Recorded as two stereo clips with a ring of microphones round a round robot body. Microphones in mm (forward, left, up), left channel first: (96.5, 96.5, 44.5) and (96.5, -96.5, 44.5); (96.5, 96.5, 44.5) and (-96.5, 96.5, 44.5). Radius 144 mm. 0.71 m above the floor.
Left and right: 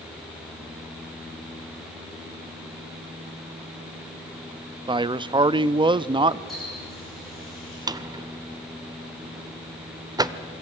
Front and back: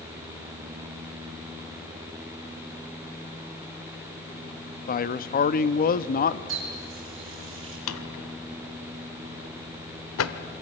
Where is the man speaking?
30° right, 0.7 m.